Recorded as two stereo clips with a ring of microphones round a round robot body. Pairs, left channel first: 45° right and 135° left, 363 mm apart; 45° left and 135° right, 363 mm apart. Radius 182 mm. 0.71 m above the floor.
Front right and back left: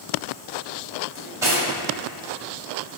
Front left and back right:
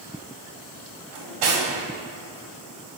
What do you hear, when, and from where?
1.1 s cutlery clinking: 140° right, 2.5 m